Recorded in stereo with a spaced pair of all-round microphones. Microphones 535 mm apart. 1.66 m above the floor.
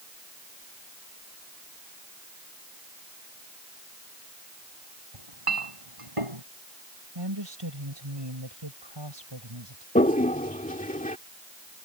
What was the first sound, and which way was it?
A clink, 75° right (ahead or behind).